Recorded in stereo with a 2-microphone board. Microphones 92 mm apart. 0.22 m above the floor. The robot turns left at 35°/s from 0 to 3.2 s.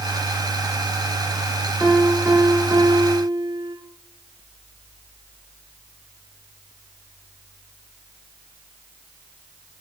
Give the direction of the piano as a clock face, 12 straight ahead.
12 o'clock.